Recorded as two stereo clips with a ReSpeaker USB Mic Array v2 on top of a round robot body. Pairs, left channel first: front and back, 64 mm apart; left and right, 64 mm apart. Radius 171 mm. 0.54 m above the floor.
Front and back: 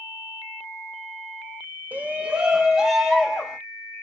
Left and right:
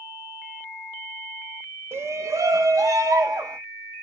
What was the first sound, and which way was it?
A shout, 120° right.